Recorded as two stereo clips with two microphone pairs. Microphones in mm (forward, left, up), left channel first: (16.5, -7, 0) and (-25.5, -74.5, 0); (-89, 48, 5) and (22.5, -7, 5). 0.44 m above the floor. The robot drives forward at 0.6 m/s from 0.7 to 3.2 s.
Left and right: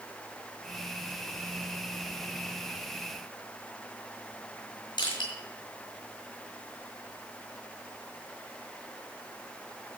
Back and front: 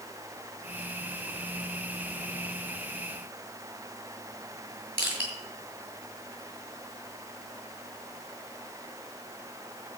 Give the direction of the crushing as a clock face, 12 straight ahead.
10 o'clock.